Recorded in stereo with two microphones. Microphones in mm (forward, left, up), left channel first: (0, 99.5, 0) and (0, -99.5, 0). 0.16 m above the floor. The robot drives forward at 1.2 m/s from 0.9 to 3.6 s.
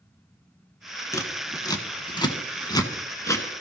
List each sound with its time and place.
1.1 s scissors: 15° left (ahead or behind), 1.9 m